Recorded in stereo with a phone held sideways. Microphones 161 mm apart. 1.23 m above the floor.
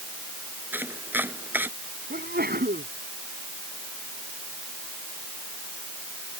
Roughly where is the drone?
I don't hear a drone.